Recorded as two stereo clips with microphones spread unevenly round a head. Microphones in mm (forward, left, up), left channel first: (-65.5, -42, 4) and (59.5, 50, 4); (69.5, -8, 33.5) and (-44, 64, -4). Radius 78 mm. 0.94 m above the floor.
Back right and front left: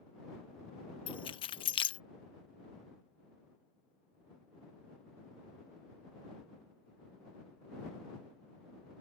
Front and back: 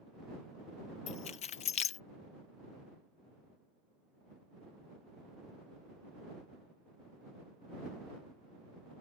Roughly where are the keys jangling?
Right.